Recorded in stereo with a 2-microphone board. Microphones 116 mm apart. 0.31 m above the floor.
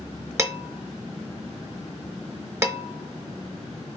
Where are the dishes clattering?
25° right (ahead or behind), 0.6 m.